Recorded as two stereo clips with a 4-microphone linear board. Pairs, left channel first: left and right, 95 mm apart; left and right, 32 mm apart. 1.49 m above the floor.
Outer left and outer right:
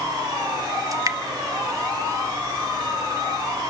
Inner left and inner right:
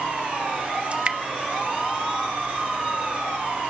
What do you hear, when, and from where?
0.9 s dripping: 40° right (ahead or behind), 0.9 m